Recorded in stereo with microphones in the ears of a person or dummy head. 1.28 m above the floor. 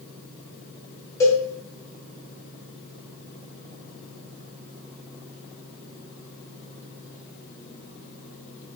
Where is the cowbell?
20° left (ahead or behind), 1.4 m.